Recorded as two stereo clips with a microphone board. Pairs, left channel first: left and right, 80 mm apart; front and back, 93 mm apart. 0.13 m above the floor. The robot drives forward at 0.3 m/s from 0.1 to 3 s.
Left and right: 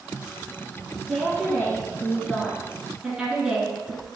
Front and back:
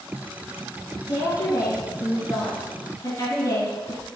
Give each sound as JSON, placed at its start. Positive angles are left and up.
{"t": 1.1, "sound": "a woman speaking", "azimuth_deg": -15, "distance_m": 2.0}